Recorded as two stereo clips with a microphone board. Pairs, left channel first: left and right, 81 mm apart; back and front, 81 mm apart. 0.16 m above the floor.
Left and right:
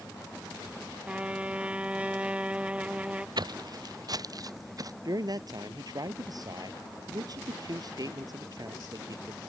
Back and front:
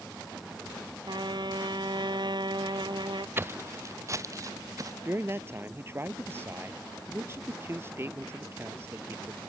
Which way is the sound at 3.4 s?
65° right.